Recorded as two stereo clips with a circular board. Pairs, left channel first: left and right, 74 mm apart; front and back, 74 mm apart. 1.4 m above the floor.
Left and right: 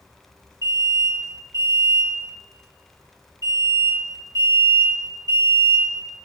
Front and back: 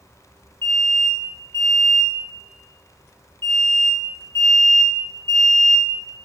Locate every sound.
0.6 s an alarm: 55° right, 2 m